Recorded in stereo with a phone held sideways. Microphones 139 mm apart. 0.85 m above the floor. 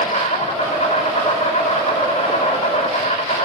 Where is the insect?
55° left (ahead or behind), 4 m.